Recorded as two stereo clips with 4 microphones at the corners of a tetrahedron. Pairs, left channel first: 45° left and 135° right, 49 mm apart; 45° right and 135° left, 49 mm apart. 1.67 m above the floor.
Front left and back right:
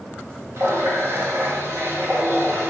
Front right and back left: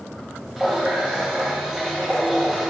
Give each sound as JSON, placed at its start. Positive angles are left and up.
{"t": 0.6, "sound": "a running tap", "azimuth_deg": -145, "distance_m": 1.9}